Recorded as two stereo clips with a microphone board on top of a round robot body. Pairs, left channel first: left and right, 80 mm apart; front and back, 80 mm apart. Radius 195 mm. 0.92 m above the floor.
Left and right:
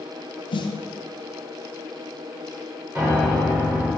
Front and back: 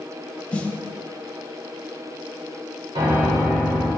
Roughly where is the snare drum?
Left.